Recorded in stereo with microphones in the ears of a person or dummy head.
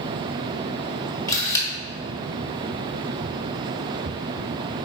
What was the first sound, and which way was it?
A camera shutter, 20° left (ahead or behind).